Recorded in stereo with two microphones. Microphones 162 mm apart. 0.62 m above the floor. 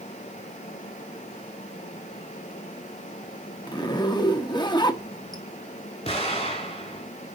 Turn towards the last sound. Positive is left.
turn(degrees=40)  # may be behind; listen again after turning